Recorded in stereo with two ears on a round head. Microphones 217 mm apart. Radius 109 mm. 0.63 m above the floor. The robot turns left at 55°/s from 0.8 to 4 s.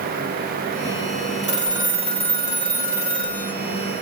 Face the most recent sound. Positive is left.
turn(degrees=75)